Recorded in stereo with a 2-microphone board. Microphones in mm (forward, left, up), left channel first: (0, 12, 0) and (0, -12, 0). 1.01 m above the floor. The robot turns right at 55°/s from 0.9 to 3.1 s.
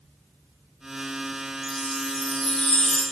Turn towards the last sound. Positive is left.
turn(degrees=90)